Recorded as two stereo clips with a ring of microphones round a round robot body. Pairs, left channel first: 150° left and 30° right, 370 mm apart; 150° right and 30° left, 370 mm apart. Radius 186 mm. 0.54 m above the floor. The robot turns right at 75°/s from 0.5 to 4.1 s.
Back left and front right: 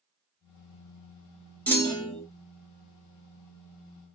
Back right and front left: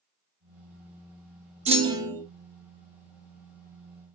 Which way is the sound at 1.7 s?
70° left.